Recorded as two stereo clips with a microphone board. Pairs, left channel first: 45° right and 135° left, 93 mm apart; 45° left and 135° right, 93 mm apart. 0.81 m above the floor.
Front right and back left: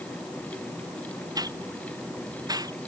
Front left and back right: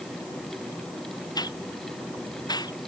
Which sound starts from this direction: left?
A hiss, at 1.4 s.